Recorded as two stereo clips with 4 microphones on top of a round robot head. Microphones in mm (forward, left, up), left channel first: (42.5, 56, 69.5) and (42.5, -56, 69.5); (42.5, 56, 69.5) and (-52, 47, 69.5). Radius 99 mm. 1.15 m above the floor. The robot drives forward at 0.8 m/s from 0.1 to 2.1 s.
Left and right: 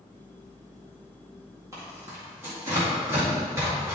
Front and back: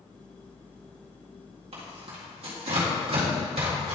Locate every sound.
1.7 s tearing paper: 155° right, 1.8 m; by 4.0 s 160° right, 2 m